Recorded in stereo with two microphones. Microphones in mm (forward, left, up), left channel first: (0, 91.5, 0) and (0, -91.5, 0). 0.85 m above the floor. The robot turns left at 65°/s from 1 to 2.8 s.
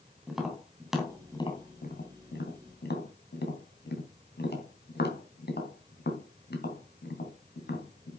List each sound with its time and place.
0.3 s tapping: centre (ahead or behind), 3 m; by 8.2 s 65° left (ahead or behind), 3 m